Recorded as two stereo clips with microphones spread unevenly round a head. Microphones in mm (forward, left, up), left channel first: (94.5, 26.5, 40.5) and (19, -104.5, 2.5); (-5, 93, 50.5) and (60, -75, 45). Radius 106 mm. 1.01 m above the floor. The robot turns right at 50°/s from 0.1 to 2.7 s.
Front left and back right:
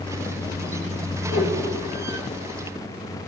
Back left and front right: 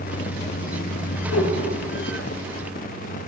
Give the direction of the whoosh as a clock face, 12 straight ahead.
8 o'clock.